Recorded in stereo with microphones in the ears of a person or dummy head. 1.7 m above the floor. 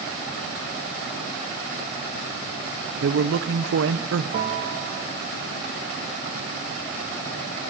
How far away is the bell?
About 3 m.